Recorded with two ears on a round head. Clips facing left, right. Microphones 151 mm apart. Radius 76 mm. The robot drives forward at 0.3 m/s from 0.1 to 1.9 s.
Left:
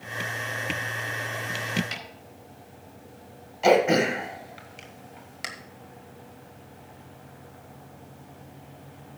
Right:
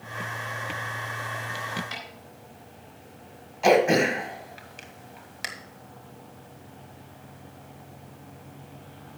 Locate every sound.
1.9 s a snare drum: 25° left (ahead or behind), 4 m
3.6 s throat clearing: 5° left (ahead or behind), 1.4 m